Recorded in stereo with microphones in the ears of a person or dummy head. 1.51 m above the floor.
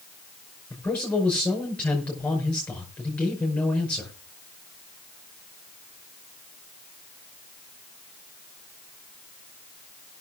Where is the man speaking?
10° left (ahead or behind), 5.5 m.